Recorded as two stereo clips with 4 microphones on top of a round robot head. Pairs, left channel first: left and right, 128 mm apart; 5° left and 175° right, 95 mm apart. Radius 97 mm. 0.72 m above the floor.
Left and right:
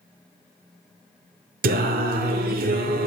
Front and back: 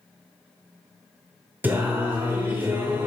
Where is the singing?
95° right, 0.8 m.